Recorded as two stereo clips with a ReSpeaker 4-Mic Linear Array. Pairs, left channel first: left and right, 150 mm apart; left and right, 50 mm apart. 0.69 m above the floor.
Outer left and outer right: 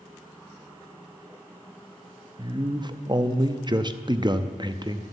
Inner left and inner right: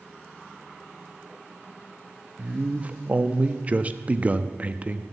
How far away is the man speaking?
About 0.6 m.